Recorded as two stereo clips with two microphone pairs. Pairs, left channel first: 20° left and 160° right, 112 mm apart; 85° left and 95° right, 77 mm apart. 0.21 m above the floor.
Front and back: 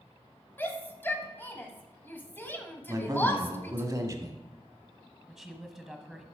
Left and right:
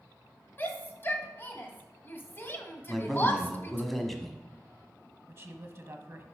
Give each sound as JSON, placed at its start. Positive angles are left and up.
{"t": 0.6, "sound": "a shout", "azimuth_deg": 75, "distance_m": 1.3}
{"t": 2.9, "sound": "a man speaking", "azimuth_deg": 170, "distance_m": 1.2}
{"t": 5.3, "sound": "a woman speaking", "azimuth_deg": -75, "distance_m": 1.2}